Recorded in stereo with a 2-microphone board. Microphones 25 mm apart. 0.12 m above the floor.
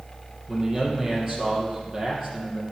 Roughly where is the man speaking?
Right.